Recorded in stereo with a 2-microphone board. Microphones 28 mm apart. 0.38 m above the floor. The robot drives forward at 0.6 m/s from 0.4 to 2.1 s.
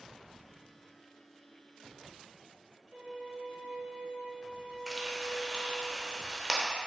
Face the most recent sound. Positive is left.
turn(degrees=-15)  # may be behind; listen again after turning